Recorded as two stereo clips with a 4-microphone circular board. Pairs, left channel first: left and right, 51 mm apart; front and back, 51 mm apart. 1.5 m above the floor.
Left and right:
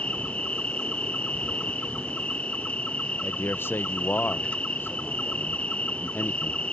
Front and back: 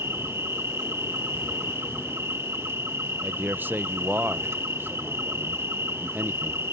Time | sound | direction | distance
0.0 | an insect | 150° left | ?
3.2 | a man speaking | 130° left | ?